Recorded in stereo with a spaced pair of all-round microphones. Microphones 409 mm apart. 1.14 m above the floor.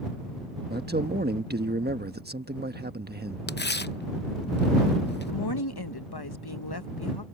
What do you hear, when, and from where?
0.7 s a man speaking: 25° right (ahead or behind)
3.5 s tearing paper: 25° left (ahead or behind)
5.3 s a woman speaking: 65° left (ahead or behind)